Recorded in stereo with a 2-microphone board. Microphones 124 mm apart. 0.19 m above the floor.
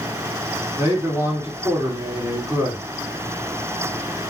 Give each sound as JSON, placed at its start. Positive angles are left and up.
{"t": 0.8, "sound": "a man speaking", "side_deg": -30, "distance_m": 1.9}